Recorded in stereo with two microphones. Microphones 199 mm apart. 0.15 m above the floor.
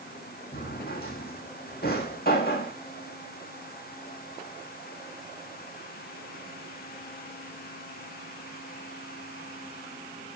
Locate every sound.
0.5 s a drawer: 50° left (ahead or behind), 2.5 m